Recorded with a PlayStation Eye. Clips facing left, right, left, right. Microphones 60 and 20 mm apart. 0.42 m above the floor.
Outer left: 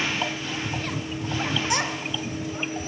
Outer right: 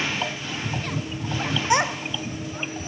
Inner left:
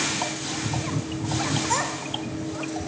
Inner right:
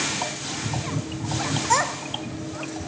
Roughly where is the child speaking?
Right.